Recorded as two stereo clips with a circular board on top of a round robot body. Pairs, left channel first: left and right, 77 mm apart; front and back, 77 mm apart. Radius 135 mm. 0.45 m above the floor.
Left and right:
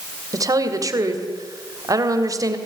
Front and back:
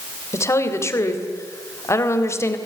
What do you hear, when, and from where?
0.3 s a woman speaking: 50° right, 3 m